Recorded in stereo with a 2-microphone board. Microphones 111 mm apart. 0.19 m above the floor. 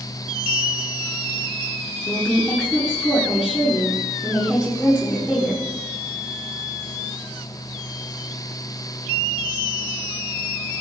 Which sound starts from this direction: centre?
A woman speaking, at 2.1 s.